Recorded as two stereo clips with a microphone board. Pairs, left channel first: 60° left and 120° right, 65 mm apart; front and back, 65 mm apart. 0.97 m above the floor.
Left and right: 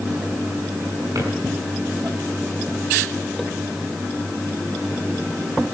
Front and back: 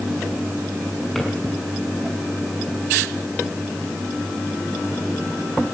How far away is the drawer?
About 5.5 m.